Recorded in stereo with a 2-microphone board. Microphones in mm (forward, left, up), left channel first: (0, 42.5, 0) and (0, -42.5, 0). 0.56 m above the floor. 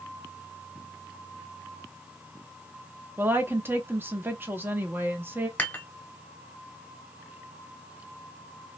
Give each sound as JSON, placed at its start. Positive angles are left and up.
{"t": 3.2, "sound": "a woman speaking", "side_deg": -25, "distance_m": 0.7}
{"t": 5.6, "sound": "dishes clattering", "side_deg": 20, "distance_m": 0.9}